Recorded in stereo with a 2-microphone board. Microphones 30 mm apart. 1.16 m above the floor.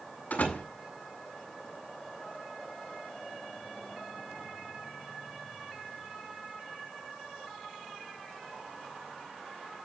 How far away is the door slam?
About 8 m.